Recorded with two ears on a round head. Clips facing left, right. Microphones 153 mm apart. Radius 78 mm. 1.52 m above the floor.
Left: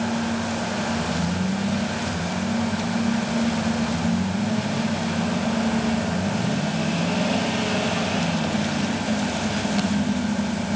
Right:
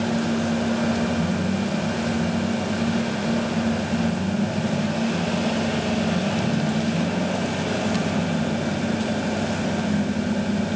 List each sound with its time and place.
Only background noise.